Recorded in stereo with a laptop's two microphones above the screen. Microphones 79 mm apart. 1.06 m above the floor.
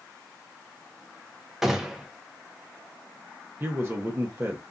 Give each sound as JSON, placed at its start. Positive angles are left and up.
{"t": 1.6, "sound": "a gunshot", "side_deg": -5, "distance_m": 0.5}
{"t": 3.6, "sound": "a man speaking", "side_deg": -30, "distance_m": 0.8}